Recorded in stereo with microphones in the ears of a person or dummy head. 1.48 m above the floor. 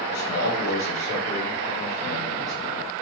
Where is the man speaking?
60° left (ahead or behind), 1.4 m; by 2.5 s centre (ahead or behind), 1.8 m.